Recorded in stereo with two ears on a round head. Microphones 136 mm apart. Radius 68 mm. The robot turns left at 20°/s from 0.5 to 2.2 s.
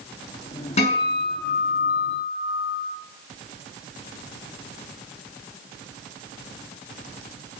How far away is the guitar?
About 6 m.